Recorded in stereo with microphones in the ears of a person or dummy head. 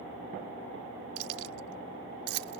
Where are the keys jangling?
70° right (ahead or behind); by 2.6 s 65° right (ahead or behind).